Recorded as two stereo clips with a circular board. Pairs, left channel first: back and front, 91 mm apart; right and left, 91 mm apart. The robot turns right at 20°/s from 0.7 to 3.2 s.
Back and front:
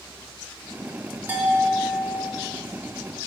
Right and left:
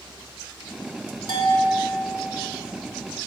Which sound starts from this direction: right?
A bell, at 1.3 s.